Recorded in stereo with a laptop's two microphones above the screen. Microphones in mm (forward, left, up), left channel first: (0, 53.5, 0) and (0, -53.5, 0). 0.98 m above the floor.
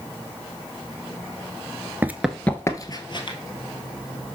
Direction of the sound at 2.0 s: 20° right (ahead or behind).